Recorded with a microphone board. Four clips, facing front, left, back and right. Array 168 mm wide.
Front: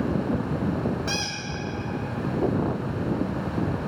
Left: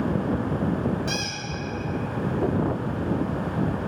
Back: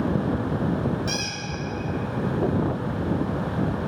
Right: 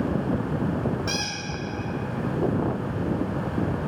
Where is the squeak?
40° right, 1.1 m.